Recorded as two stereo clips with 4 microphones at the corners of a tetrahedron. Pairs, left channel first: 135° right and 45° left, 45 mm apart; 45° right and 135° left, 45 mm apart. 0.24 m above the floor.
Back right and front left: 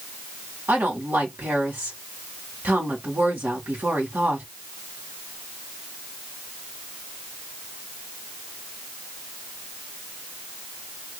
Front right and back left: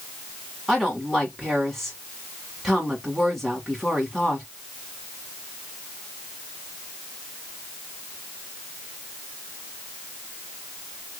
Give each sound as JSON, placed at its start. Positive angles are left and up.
{"t": 0.7, "sound": "a woman speaking", "azimuth_deg": 40, "distance_m": 1.7}